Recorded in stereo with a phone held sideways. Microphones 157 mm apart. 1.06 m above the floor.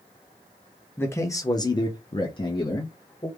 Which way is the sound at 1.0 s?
15° left (ahead or behind).